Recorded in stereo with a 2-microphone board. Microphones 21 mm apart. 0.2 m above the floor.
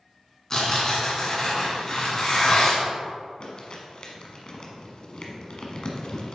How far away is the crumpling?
About 1.3 m.